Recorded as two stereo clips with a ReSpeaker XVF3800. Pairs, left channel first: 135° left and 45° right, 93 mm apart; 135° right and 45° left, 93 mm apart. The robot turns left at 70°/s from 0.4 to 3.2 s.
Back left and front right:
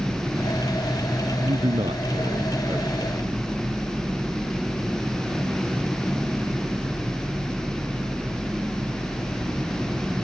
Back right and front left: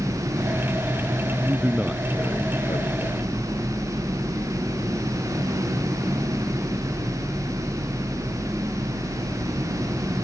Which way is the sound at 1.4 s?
5° right.